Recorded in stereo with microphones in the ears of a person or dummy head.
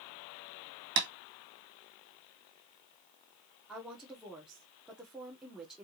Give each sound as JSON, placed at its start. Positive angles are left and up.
{"t": 1.0, "sound": "tapping", "side_deg": -55, "distance_m": 1.8}
{"t": 3.7, "sound": "a woman speaking", "side_deg": -5, "distance_m": 1.3}